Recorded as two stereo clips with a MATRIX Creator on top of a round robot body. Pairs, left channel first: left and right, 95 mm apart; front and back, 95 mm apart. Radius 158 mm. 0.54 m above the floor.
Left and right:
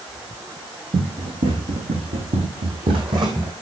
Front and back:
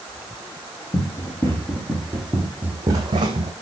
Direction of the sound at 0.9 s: 60° right.